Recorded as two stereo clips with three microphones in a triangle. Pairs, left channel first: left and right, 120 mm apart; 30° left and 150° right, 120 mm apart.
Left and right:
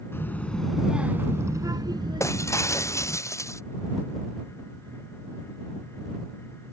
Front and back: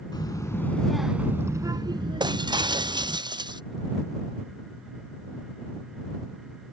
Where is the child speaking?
35° left; by 3.2 s 130° right.